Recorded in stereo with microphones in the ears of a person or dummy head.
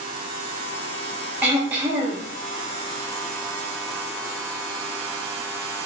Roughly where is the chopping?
I don't hear chopping.